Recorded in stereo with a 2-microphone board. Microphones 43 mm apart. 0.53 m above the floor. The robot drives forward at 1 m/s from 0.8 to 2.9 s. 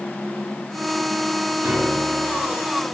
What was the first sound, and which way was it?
A piano, 45° right (ahead or behind).